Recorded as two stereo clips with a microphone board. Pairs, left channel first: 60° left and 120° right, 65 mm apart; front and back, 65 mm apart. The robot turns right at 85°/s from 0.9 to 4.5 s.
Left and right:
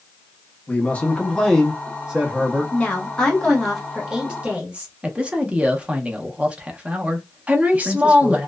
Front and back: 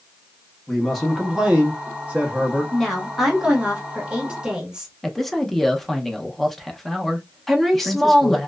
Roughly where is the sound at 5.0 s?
Right.